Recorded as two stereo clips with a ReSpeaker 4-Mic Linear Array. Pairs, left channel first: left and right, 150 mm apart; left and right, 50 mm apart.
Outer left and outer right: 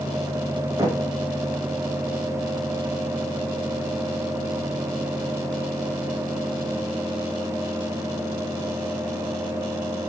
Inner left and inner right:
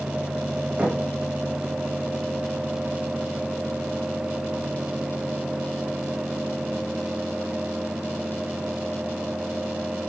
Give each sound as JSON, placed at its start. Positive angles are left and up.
{"t": 0.8, "sound": "knocking", "side_deg": -20, "distance_m": 5.5}